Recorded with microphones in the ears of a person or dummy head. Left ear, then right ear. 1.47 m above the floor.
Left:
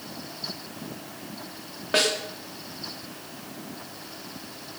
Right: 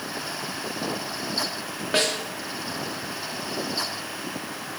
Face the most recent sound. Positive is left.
turn(degrees=5)  # may be behind; listen again after turning